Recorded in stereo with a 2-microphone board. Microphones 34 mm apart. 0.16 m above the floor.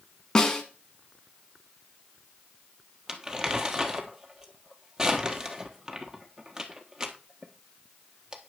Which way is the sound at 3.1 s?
15° right (ahead or behind).